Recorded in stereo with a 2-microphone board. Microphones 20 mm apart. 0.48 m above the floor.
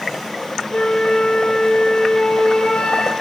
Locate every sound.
0.7 s a flute: 75° left (ahead or behind), 4.5 m